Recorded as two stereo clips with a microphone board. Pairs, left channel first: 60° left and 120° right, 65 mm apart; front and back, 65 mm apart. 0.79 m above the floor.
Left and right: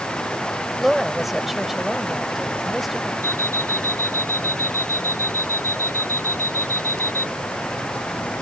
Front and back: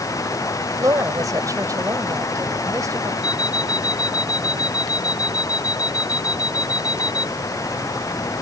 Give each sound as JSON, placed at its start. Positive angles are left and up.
{"t": 0.8, "sound": "a woman speaking", "azimuth_deg": 150}
{"t": 3.2, "sound": "an alarm clock", "azimuth_deg": 110}